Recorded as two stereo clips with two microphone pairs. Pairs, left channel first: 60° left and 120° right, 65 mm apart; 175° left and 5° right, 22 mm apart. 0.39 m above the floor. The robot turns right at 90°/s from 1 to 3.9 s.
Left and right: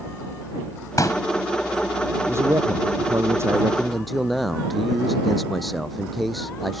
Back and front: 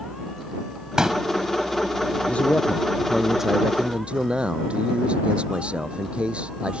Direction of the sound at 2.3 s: 175° right.